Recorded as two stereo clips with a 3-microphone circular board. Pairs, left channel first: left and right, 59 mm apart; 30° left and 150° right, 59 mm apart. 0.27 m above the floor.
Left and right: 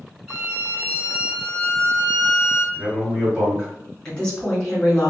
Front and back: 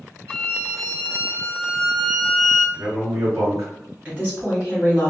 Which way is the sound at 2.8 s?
150° right.